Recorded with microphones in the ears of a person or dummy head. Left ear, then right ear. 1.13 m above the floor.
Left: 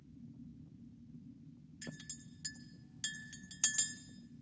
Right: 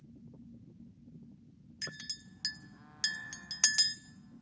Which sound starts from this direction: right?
A clink, at 1.8 s.